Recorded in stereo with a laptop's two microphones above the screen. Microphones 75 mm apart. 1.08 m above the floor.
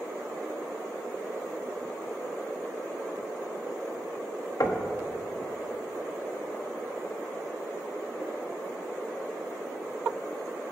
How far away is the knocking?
About 1.1 m.